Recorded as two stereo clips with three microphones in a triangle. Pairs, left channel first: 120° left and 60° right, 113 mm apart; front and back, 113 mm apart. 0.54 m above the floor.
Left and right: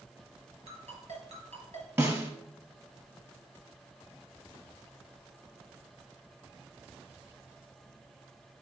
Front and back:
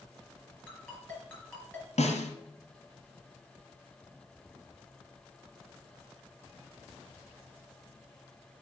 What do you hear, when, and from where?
0.7 s a ringtone: 80° right, 4.5 m
2.0 s a snare drum: 5° left, 1.9 m